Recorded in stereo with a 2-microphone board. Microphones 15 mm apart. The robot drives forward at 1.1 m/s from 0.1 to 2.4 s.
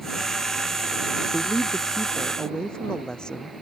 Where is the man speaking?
65° left (ahead or behind); by 3.5 s 60° left (ahead or behind).